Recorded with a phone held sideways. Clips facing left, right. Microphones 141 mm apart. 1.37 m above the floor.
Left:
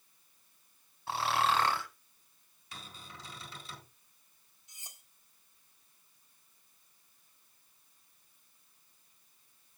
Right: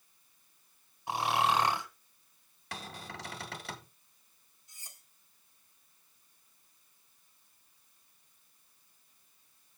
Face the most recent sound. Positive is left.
turn(degrees=20)  # may be behind; listen again after turning